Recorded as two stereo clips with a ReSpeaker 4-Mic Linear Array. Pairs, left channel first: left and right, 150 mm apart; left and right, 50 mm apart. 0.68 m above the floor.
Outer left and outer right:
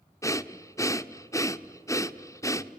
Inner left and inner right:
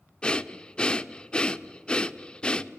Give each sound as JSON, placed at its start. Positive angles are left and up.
{"t": 0.2, "sound": "breathing", "side_deg": 20, "distance_m": 0.5}